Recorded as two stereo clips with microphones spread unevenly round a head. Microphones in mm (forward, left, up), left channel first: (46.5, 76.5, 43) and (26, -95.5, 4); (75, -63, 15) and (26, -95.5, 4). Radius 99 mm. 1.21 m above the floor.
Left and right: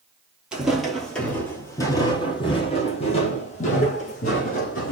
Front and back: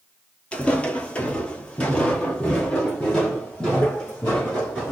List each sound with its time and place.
0.5 s footsteps: 5° left, 1.4 m; by 4.9 s 110° left, 2.5 m